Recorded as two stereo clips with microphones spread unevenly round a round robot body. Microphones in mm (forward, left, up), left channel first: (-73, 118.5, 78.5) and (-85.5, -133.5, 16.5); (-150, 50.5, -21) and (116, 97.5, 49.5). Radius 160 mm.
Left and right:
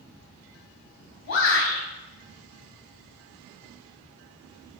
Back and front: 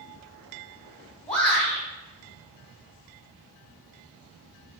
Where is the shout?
110° left, 3.5 m.